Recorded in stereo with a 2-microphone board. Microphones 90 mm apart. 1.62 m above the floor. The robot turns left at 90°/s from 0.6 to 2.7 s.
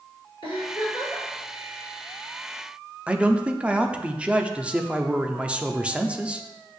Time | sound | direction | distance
0.4 | a giggle | 75° left | 4 m
3.1 | a man speaking | 15° right (ahead or behind) | 0.7 m